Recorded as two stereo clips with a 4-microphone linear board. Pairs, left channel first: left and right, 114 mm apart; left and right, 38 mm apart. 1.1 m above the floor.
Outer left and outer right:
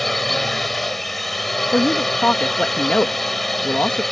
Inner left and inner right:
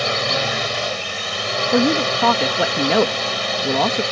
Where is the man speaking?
10° left (ahead or behind).